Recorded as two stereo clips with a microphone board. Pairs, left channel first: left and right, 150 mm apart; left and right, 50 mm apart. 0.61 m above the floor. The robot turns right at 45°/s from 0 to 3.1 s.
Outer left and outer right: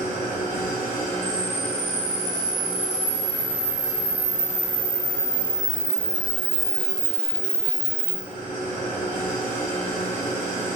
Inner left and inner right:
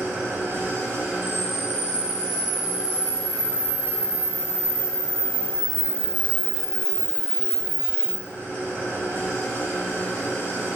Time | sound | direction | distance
0.0 | an engine running | 85° right | 1.7 m
1.2 | a camera shutter | 165° left | 0.6 m